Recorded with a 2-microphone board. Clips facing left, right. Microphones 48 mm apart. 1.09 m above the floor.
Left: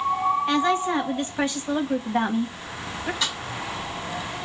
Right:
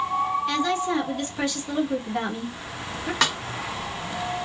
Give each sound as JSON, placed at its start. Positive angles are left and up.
{"t": 0.5, "sound": "a woman speaking", "side_deg": 25, "distance_m": 1.3}
{"t": 3.2, "sound": "a snare drum", "side_deg": -70, "distance_m": 0.7}